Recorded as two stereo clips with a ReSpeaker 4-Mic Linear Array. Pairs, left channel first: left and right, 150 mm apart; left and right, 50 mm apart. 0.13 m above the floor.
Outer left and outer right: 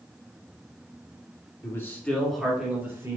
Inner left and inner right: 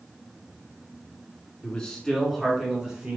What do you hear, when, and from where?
1.6 s a man speaking: 20° left (ahead or behind), 1.5 m; by 3.2 s 20° right (ahead or behind), 1.5 m